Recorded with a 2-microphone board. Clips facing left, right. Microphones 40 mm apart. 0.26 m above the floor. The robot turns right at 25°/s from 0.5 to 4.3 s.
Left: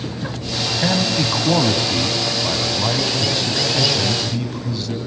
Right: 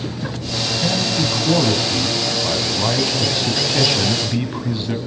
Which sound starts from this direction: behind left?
A man speaking, at 0.8 s.